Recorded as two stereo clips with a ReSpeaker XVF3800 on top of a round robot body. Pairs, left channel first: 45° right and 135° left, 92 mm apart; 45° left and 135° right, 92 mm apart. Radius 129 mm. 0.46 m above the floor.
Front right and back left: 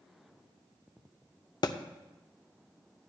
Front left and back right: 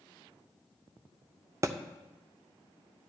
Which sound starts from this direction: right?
A thud, at 1.6 s.